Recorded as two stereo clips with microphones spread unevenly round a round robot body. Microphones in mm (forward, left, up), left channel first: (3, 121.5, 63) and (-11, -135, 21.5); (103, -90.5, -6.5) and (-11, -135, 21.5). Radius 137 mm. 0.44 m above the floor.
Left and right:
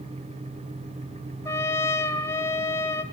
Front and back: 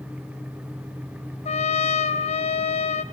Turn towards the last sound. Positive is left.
turn(degrees=5)